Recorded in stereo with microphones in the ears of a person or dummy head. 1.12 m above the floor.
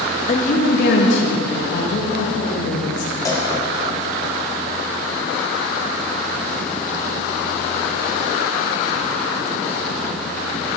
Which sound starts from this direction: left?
A woman speaking, at 0.3 s.